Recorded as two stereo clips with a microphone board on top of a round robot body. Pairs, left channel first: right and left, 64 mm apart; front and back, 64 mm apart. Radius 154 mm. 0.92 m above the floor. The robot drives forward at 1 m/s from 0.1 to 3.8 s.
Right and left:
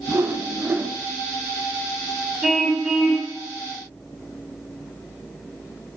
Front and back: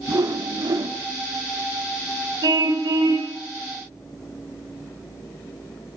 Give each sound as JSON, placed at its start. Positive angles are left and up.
{"t": 0.1, "sound": "a whoosh", "azimuth_deg": 145, "distance_m": 1.8}
{"t": 2.4, "sound": "a car horn", "azimuth_deg": 175, "distance_m": 3.5}